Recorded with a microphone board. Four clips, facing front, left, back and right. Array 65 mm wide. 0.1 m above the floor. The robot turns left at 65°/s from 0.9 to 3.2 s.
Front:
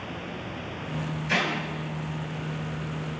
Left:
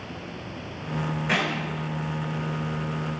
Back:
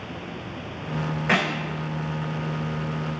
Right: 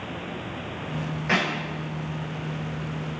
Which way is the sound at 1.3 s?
170° right.